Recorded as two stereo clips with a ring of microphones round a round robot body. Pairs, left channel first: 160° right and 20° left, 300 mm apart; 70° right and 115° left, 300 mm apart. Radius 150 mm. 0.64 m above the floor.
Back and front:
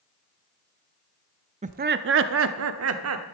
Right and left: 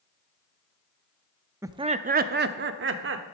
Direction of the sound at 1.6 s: 45° left.